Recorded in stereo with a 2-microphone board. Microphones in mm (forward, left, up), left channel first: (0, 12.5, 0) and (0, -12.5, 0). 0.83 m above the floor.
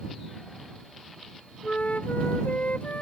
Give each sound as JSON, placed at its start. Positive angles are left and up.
{"t": 1.6, "sound": "a flute", "side_deg": 80}